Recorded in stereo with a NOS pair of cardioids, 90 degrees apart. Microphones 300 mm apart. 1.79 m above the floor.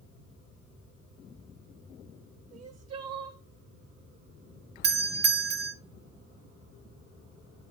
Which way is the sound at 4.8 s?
35° right.